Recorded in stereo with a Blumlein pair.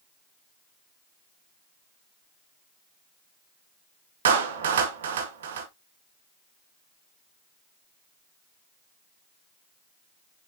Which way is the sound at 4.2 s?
60° right.